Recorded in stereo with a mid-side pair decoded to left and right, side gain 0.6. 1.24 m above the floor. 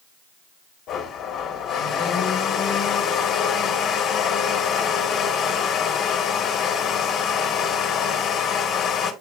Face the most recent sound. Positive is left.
turn(degrees=60)